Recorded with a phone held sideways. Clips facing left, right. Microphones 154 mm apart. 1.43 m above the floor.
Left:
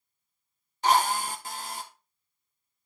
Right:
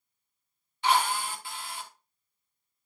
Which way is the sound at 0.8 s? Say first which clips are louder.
Left 2 dB; 40° left (ahead or behind).